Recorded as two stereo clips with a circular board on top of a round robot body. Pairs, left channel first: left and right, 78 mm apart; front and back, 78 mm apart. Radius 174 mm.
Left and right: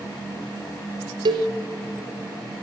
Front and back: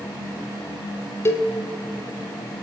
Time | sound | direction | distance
1.2 | a cowbell | 55° right | 1.4 m